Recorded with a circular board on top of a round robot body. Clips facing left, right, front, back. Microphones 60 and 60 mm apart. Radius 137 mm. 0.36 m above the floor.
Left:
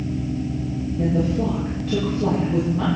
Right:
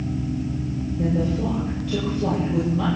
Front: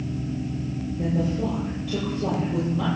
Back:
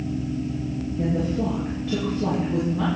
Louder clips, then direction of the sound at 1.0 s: Left 2 dB, back 1 dB; 135° left.